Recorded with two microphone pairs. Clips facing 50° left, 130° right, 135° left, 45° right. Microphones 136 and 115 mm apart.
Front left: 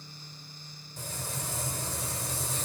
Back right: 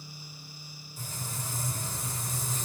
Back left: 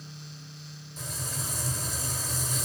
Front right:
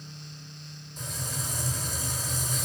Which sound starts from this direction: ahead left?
Frying, at 1.0 s.